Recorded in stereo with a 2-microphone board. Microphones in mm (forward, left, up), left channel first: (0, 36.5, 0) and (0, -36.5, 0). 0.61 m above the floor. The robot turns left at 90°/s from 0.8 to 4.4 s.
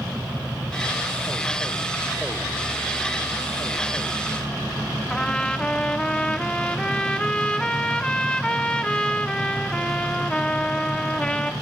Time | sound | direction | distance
5.1 | a trumpet | 15° left (ahead or behind) | 0.8 m